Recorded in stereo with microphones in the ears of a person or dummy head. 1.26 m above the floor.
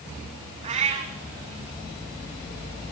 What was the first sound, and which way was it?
A cat meowing, 35° right (ahead or behind).